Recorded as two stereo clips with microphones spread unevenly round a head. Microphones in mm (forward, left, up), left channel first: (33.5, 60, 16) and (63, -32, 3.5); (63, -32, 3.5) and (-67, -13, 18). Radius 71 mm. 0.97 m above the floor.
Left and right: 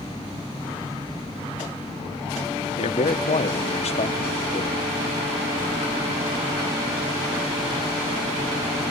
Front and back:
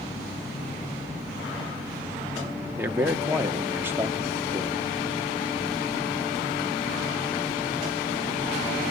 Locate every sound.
2.8 s a man speaking: 95° left, 1.7 m